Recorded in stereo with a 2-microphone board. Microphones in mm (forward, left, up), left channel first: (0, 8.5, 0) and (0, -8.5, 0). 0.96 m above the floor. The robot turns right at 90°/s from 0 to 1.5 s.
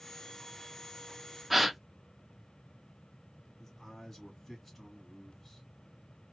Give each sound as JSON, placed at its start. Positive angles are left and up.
{"t": 1.5, "sound": "a gasp", "side_deg": -15, "distance_m": 0.5}
{"t": 3.6, "sound": "a man speaking", "side_deg": 10, "distance_m": 2.0}